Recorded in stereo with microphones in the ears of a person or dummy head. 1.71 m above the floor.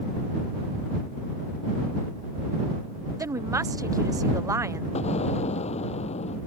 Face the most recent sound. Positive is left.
turn(degrees=35)  # may be behind; listen again after turning